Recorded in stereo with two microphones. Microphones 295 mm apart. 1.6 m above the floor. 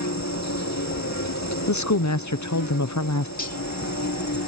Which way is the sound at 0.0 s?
65° left (ahead or behind).